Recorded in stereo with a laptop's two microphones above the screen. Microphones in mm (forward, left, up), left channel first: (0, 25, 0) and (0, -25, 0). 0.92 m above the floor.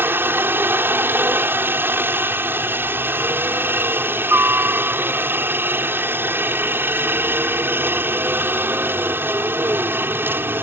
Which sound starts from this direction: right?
A helicopter, at 0.0 s.